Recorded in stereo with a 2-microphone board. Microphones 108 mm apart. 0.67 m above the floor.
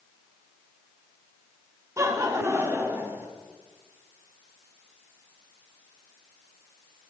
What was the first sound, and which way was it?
Laughter, 25° right (ahead or behind).